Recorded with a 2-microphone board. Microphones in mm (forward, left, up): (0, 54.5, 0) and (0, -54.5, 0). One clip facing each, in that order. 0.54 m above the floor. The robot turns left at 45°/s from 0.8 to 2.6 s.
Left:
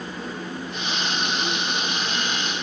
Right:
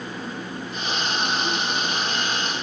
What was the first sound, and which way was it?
Only background noise.